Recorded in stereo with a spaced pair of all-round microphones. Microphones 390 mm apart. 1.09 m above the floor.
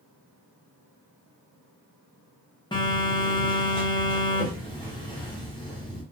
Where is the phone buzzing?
10° left (ahead or behind), 0.7 m.